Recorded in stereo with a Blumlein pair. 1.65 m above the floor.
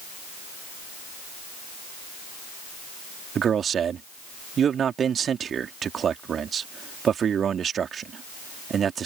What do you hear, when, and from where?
3.4 s a man speaking: 25° right